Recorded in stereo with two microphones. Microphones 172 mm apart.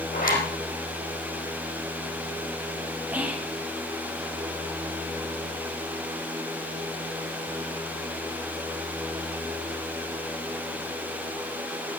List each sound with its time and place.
0.1 s a zipper: 55° left (ahead or behind), 5.5 m
3.1 s whispering: 10° right (ahead or behind), 1.2 m